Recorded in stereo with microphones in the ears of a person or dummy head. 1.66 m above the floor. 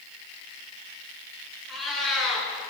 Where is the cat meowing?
Centre (ahead or behind), 3.5 m.